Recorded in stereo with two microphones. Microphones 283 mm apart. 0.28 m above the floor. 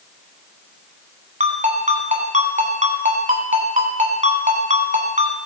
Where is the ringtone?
25° right (ahead or behind), 1.6 m.